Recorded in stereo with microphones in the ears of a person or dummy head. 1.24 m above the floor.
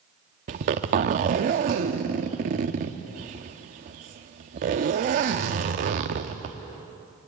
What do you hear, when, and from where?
0.5 s a zipper: 40° right (ahead or behind), 0.8 m